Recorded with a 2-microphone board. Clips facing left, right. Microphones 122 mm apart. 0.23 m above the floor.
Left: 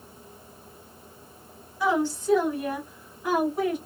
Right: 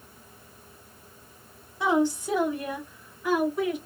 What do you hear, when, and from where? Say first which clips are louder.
1.8 s a woman speaking: right 1 dB; 25° right (ahead or behind), 1.3 m; by 3.8 s 35° left (ahead or behind), 1.5 m